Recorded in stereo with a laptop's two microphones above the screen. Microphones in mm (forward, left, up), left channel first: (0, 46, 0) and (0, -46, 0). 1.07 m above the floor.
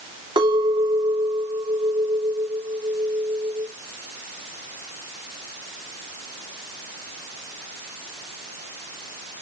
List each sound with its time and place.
0.4 s a clink: 65° right (ahead or behind), 2.5 m